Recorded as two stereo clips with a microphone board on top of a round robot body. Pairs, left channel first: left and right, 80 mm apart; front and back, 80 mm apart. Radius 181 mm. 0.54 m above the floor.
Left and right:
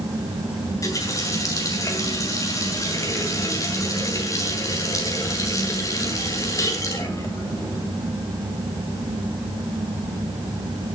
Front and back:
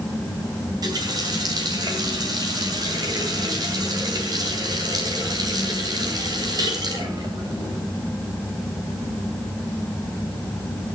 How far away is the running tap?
About 3.5 m.